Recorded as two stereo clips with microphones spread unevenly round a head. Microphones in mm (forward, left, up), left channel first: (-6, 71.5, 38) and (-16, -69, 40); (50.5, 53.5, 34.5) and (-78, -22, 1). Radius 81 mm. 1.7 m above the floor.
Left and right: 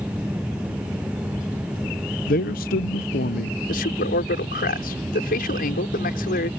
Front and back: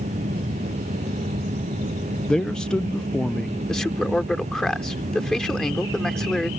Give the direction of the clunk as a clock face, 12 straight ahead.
I don't hear a clunk.